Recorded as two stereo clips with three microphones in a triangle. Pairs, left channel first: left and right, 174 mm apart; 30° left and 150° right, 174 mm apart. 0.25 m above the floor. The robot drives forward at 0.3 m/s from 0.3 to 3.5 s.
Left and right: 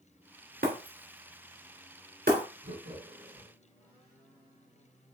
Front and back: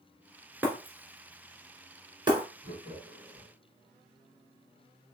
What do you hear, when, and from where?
0.6 s breaking glass: 70° right, 2.0 m; by 2.5 s 90° right, 1.9 m
2.6 s laughter: 95° right, 3.5 m; by 3.5 s 100° right, 3.5 m